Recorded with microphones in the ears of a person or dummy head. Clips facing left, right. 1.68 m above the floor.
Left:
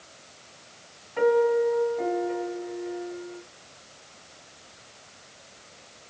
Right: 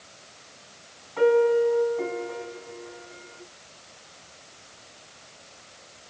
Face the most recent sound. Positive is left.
turn(degrees=20)  # may be behind; listen again after turning